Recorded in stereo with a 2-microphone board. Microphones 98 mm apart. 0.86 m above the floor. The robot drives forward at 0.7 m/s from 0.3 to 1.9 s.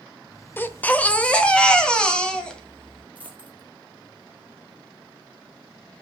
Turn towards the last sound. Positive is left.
turn(degrees=15)  # may be behind; listen again after turning